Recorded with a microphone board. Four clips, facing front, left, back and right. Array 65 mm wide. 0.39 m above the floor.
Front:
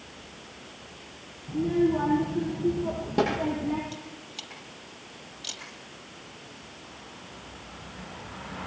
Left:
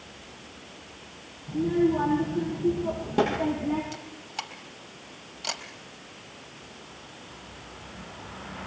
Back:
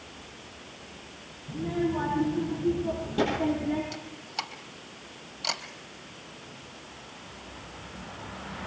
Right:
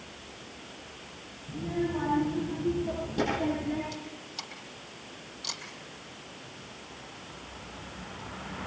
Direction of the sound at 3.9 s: 135° left.